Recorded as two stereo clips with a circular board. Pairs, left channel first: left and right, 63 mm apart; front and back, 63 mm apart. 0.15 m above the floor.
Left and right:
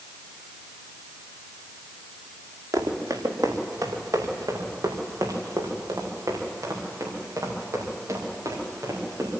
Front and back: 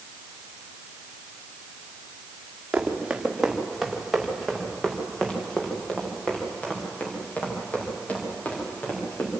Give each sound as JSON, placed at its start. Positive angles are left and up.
{"t": 2.7, "sound": "running footsteps", "azimuth_deg": -105, "distance_m": 3.0}